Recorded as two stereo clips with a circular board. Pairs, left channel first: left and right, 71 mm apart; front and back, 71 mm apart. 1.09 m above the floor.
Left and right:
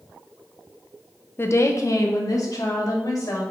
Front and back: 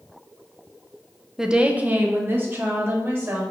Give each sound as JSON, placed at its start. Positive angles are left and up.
{"t": 1.4, "sound": "a woman speaking", "azimuth_deg": 100, "distance_m": 0.7}